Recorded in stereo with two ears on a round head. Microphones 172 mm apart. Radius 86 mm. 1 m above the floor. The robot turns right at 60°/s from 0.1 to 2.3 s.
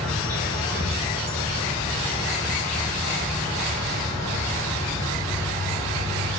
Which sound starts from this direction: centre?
An insect, at 0.0 s.